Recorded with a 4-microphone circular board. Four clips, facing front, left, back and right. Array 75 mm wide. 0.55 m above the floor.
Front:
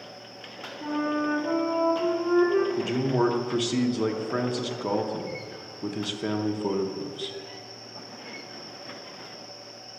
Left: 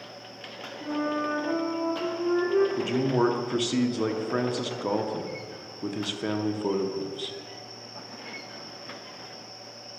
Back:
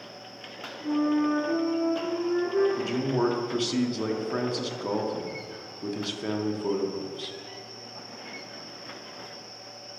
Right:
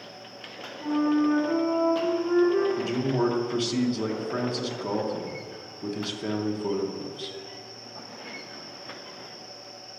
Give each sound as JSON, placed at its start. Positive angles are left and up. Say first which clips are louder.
{"t": 0.8, "sound": "a flute", "louder": "right 5 dB, back 2 dB", "azimuth_deg": 5, "distance_m": 1.4}
{"t": 2.8, "sound": "a man speaking", "louder": "left 1 dB, front 2 dB", "azimuth_deg": 60, "distance_m": 0.6}